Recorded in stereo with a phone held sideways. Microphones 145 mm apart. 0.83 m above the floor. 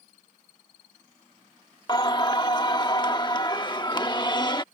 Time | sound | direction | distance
1.9 | singing | 30° left (ahead or behind) | ?